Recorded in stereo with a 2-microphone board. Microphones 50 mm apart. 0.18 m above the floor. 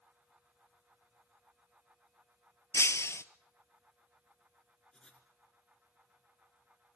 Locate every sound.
2.7 s breaking glass: 70° left (ahead or behind), 0.7 m
4.9 s writing: 10° left (ahead or behind), 2.5 m